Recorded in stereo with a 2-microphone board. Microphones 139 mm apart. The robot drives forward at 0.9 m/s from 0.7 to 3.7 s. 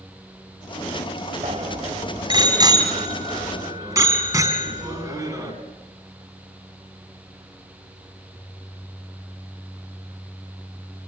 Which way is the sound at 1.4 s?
45° right (ahead or behind).